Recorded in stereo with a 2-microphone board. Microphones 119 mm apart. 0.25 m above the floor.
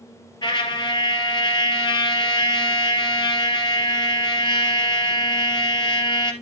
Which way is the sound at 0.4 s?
40° left (ahead or behind).